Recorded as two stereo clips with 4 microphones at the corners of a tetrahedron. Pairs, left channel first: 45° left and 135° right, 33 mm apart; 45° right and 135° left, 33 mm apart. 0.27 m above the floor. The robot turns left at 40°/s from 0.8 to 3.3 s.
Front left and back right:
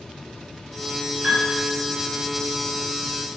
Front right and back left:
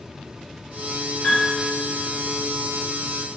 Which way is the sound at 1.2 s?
75° right.